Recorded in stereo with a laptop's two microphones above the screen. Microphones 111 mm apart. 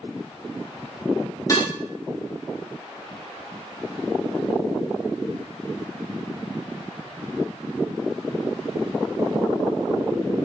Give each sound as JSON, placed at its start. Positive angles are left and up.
{"t": 1.5, "sound": "dishes clattering", "side_deg": 30, "distance_m": 2.5}